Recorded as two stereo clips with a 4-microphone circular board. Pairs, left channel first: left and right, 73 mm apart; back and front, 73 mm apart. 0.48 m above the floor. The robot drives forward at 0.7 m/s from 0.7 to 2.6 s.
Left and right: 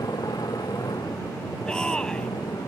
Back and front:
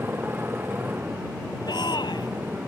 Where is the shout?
170° left.